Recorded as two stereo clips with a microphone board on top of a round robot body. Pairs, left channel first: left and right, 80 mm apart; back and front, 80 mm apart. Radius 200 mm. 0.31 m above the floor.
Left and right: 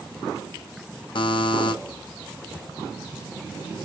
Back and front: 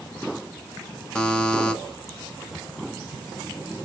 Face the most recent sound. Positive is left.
turn(degrees=100)